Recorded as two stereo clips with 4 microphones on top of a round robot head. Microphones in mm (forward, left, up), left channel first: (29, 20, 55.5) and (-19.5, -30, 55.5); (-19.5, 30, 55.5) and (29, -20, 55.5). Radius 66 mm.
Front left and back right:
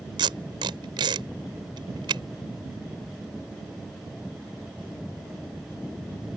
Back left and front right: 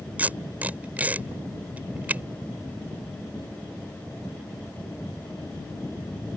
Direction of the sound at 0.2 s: 115° right.